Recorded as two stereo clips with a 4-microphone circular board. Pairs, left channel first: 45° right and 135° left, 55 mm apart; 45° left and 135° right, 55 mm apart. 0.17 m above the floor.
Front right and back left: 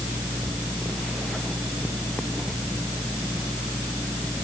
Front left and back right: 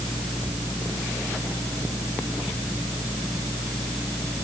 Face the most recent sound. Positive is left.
No sound to turn to.